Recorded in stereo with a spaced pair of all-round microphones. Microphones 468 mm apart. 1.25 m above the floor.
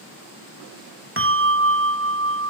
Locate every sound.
1.2 s a bell: 25° right (ahead or behind), 1.5 m